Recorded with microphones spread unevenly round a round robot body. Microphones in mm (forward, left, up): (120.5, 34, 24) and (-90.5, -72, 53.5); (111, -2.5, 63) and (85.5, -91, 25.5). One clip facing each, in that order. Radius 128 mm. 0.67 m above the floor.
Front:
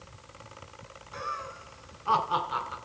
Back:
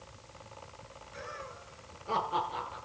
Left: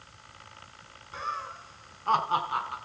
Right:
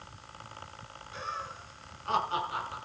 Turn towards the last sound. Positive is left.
turn(degrees=40)